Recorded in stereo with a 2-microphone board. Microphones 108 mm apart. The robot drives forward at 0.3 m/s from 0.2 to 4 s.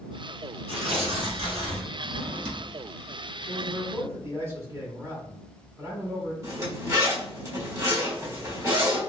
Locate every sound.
0.7 s tearing paper: 75° right (ahead or behind), 1.5 m
2.0 s a drawer: 85° right, 0.6 m; by 2.7 s 75° right (ahead or behind), 0.7 m
3.5 s a man speaking: 25° right (ahead or behind), 1.5 m
6.4 s a zipper: 30° right (ahead or behind), 1.4 m